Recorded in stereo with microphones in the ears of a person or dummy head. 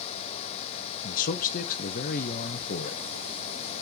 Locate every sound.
1.0 s a man speaking: 45° left (ahead or behind), 1.1 m